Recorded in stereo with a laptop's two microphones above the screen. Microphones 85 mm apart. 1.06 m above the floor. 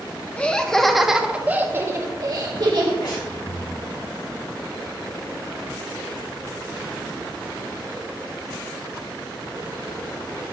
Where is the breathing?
60° left (ahead or behind), 3 m.